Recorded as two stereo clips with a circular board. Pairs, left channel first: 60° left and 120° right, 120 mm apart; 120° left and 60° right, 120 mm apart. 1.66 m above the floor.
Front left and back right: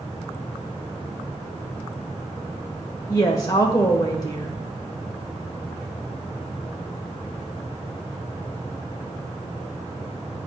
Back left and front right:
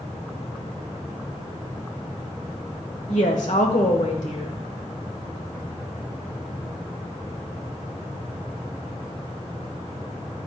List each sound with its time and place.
3.1 s a woman speaking: 120° left, 1.4 m